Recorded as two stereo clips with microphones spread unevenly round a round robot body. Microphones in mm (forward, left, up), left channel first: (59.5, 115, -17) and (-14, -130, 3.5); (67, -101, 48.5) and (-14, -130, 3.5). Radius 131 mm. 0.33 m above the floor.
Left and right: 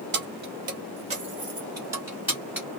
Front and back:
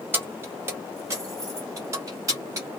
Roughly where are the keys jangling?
Behind right.